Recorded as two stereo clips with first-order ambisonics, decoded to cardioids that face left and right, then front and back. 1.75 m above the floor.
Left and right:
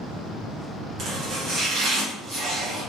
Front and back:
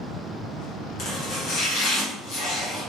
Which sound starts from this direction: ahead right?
Chopping, at 1.0 s.